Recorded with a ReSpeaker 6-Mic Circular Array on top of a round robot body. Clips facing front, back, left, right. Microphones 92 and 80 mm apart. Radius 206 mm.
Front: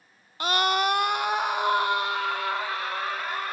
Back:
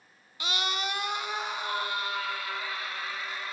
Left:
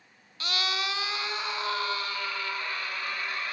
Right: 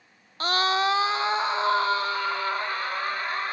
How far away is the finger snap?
I don't hear a finger snap.